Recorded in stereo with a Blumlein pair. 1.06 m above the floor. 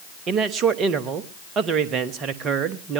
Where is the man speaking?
30° right, 1.1 m.